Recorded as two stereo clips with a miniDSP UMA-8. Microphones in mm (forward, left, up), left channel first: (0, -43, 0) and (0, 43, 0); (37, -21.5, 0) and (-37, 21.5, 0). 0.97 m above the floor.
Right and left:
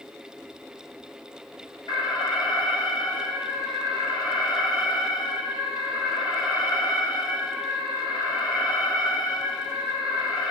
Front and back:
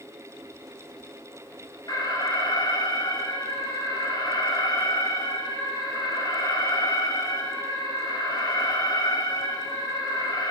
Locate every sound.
1.9 s an alarm: 65° right, 5 m